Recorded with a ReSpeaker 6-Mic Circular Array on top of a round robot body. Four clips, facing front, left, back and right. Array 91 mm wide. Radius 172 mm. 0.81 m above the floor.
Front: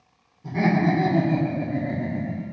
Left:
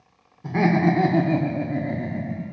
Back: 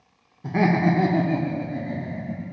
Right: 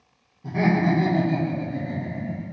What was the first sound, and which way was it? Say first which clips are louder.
Laughter: left 2 dB, back 1 dB; 145° left.